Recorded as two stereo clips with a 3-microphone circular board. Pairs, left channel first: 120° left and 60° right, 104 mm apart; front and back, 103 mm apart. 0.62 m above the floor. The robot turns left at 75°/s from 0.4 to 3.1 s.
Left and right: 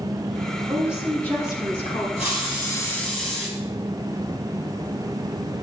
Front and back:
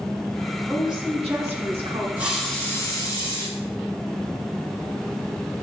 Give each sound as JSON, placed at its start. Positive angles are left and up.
{"t": 0.7, "sound": "a woman speaking", "azimuth_deg": -125, "distance_m": 5.5}
{"t": 2.2, "sound": "a hiss", "azimuth_deg": 110, "distance_m": 5.0}